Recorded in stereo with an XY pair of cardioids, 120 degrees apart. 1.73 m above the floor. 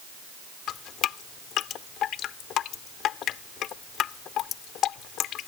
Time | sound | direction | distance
0.7 | dripping | 65° left | ?